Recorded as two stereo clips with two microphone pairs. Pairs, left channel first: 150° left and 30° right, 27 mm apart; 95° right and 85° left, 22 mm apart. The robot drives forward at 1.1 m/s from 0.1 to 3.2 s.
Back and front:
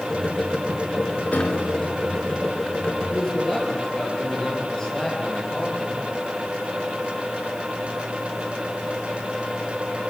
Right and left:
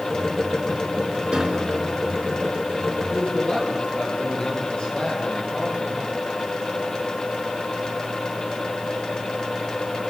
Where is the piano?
135° left, 3.5 m; by 2.1 s 145° left, 4 m.